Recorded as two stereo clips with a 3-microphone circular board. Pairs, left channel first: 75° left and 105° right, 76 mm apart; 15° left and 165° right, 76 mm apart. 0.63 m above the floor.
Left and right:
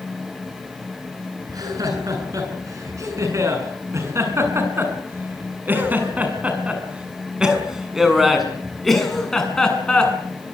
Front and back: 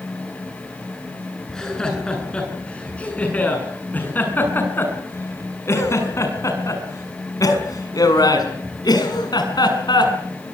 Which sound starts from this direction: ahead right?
Laughter, at 1.5 s.